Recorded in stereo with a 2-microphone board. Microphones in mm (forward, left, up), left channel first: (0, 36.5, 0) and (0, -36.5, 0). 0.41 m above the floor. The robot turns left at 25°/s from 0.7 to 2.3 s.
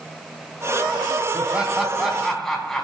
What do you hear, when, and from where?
1.3 s laughter: 20° right (ahead or behind), 3.5 m; by 2.8 s 5° left (ahead or behind), 3.5 m